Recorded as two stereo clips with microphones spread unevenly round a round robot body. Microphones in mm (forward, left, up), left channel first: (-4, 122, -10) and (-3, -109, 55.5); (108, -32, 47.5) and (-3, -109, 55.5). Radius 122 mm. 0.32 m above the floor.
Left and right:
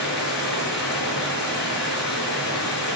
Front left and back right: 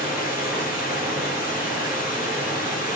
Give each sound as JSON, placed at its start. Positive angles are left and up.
{"t": 0.0, "sound": "running water", "azimuth_deg": 130, "distance_m": 5.0}